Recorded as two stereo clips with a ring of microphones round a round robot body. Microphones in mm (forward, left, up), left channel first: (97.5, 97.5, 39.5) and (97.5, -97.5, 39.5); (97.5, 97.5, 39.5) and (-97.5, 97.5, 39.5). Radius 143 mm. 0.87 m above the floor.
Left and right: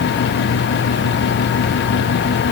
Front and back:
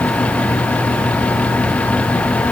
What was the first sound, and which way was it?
Only background noise.